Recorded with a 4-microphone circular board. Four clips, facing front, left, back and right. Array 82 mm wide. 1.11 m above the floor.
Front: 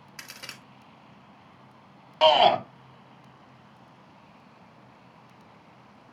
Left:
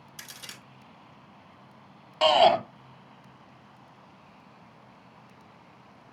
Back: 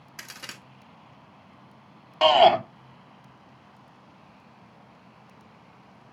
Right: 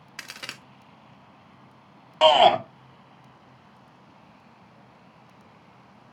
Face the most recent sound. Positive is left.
turn(degrees=-105)